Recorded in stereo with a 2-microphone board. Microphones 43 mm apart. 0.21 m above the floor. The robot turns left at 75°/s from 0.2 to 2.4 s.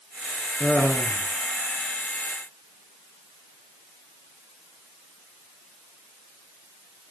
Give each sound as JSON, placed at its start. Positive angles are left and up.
{"t": 0.6, "sound": "laughter", "azimuth_deg": 75, "distance_m": 3.0}